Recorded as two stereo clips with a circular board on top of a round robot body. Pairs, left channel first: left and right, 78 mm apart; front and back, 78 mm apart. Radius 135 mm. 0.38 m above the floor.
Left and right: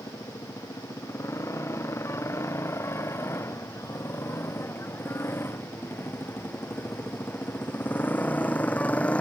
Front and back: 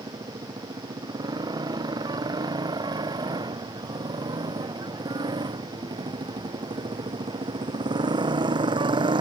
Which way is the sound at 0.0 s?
145° left.